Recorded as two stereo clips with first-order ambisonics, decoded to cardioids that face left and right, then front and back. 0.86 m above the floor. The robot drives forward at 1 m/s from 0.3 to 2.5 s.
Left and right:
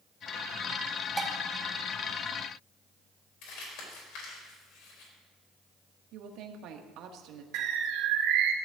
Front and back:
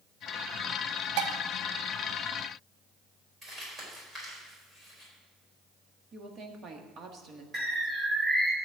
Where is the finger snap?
I don't hear a finger snap.